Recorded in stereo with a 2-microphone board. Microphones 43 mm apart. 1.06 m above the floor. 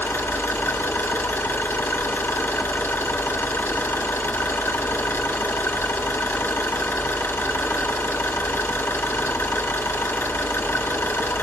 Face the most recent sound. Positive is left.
turn(degrees=60)  # may be behind; listen again after turning